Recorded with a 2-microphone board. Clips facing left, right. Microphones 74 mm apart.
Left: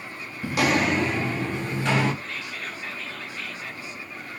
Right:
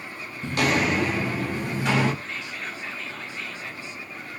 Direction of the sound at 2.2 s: 30° right (ahead or behind).